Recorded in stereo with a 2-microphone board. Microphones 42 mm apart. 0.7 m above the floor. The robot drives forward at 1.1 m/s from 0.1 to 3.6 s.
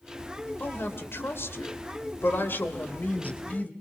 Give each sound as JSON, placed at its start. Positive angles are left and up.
{"t": 0.6, "sound": "a woman speaking", "side_deg": 60, "distance_m": 2.5}